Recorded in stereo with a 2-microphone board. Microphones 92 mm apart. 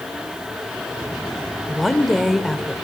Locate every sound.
1.7 s a woman speaking: centre (ahead or behind), 1.5 m